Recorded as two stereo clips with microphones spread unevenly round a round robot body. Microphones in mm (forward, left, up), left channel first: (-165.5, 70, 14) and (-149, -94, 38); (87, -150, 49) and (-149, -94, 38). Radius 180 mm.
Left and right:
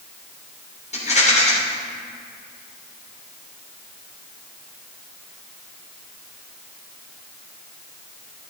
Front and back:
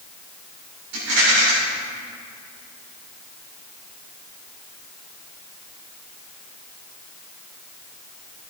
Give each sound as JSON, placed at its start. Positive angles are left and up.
{"t": 0.9, "sound": "a rattle", "azimuth_deg": 140, "distance_m": 3.5}